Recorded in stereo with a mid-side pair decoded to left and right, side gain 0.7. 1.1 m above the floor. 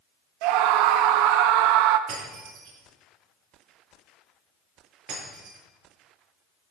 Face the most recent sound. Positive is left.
turn(degrees=-60)